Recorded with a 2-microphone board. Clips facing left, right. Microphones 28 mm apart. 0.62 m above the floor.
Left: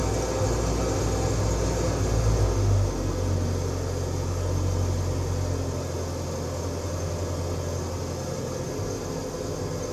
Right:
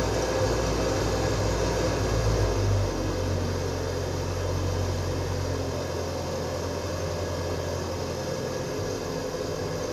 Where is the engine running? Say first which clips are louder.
Right 1 dB; 40° right (ahead or behind), 1.8 m.